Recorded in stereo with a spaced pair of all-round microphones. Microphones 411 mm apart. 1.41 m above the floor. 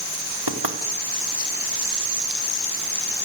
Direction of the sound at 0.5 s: 65° right (ahead or behind).